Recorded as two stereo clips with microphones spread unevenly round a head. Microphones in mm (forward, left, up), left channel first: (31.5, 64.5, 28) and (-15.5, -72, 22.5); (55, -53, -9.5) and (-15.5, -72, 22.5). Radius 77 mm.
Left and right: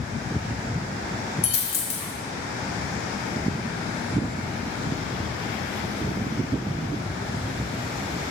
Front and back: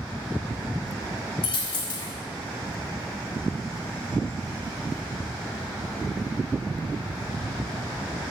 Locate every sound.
1.4 s a dropped coin: 40° left, 1.1 m